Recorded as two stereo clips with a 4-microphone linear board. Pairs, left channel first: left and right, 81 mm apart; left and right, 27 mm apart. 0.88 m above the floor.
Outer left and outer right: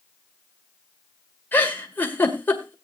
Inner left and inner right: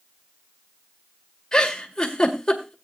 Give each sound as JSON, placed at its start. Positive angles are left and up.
{"t": 1.5, "sound": "a giggle", "side_deg": 25, "distance_m": 2.0}